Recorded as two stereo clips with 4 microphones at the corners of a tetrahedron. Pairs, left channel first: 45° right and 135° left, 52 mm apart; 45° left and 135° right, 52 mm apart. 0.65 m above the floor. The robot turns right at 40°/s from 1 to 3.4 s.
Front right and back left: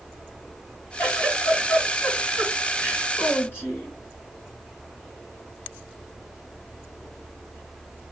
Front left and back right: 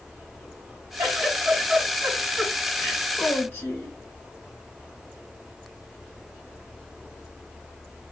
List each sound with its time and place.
1.0 s a giggle: 100° right, 3.5 m; by 4.0 s 5° right, 3.5 m